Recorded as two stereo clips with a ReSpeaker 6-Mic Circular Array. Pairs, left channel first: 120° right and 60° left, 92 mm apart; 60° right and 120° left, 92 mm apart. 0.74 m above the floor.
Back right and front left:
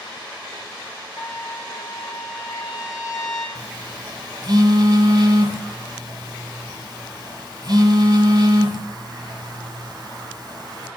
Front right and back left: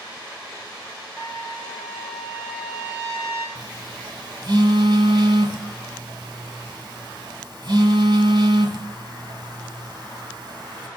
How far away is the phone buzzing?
About 1.6 m.